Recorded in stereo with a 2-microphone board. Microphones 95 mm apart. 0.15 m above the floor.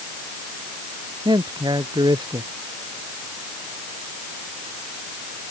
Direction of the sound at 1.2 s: 45° right (ahead or behind).